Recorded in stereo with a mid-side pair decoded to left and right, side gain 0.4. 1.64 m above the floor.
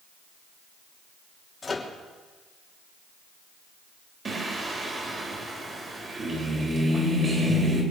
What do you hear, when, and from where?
1.6 s a microwave: 35° left, 3 m
4.2 s singing: 40° right, 4.5 m